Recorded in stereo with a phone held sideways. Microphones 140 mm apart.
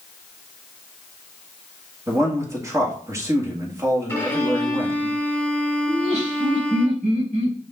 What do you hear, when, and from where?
2.1 s a man speaking: 20° right (ahead or behind), 2.0 m
4.1 s a violin: 15° left (ahead or behind), 2.5 m
5.9 s laughter: 55° right (ahead or behind), 5 m